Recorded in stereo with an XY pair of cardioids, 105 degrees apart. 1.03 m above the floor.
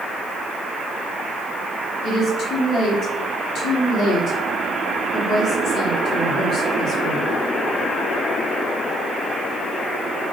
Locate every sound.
2.0 s a woman speaking: 70° left, 3 m